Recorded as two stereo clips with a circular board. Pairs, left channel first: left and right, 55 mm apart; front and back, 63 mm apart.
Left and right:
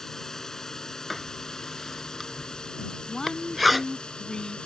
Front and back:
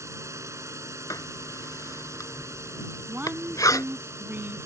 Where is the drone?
170° left; by 4.7 s 160° left.